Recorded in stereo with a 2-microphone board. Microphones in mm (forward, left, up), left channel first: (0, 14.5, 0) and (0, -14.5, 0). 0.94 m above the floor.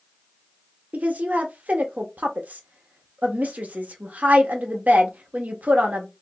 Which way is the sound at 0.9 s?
70° right (ahead or behind).